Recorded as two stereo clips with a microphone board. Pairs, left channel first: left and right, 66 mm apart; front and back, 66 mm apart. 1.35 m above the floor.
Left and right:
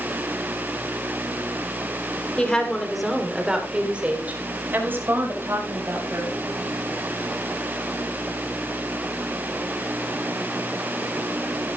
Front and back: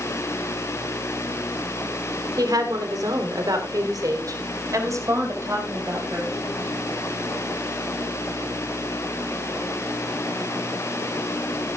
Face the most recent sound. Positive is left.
turn(degrees=-135)